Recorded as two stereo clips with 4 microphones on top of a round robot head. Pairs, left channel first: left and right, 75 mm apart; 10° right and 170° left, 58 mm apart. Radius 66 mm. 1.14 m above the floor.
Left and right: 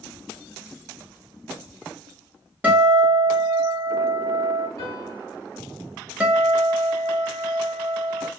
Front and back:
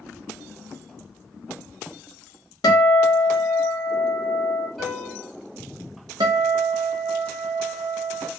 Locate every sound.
2.6 s a guitar: 20° right, 0.7 m
4.8 s a piano: 80° left, 1.0 m
6.2 s a guitar: 165° right, 0.6 m